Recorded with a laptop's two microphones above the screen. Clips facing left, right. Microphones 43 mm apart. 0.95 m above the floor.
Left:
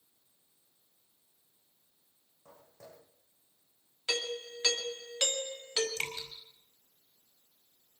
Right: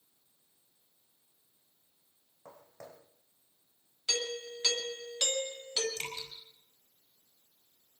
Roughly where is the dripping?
Left.